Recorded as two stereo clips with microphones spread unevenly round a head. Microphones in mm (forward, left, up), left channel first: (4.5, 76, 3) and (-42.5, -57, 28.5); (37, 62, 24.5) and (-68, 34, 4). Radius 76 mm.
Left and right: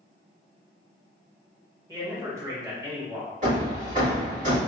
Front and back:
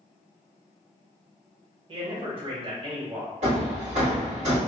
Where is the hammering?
145° right, 1.8 m.